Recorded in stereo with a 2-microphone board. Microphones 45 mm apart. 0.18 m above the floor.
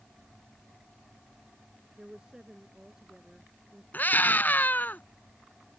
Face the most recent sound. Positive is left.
turn(degrees=45)  # may be behind; listen again after turning